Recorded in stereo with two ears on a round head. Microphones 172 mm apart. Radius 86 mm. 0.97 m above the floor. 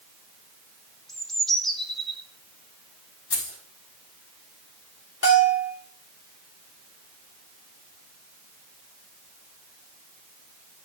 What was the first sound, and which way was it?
A bird, centre (ahead or behind).